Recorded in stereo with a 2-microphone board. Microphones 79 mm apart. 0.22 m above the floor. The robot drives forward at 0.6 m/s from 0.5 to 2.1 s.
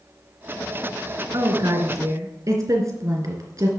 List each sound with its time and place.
1.3 s a woman speaking: 45° right (ahead or behind), 3 m; by 3.7 s 40° right (ahead or behind), 3 m